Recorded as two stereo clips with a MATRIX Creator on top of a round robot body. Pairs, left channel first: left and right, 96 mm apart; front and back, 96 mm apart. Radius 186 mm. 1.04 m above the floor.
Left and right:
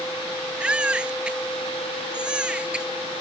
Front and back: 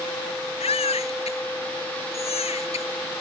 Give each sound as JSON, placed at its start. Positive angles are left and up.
{"t": 0.6, "sound": "a baby crying", "azimuth_deg": -10}